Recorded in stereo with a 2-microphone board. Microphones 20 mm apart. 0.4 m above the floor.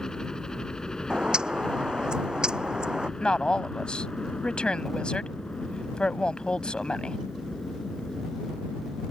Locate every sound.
0.0 s a helicopter: 35° left (ahead or behind); by 9.1 s 60° left (ahead or behind)
1.1 s a bird: 50° right (ahead or behind)
3.2 s a woman speaking: 65° left (ahead or behind)